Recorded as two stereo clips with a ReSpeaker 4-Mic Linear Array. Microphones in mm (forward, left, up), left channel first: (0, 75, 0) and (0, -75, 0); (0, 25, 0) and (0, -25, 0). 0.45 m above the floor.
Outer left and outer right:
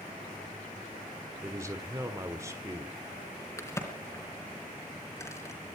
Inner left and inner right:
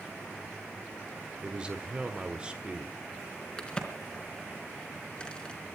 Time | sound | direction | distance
1.4 | a man speaking | 20° right (ahead or behind) | 1.5 m
3.6 | a crack | 20° left (ahead or behind) | 3.5 m